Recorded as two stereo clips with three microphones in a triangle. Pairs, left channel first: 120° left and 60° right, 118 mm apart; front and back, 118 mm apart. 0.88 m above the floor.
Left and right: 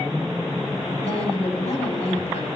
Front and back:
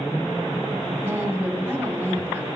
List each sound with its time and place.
1.0 s a woman speaking: 110° left, 2.5 m